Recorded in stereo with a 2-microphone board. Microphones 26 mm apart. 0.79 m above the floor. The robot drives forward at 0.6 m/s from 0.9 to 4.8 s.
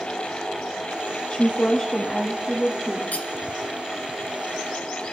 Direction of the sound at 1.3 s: 40° left (ahead or behind).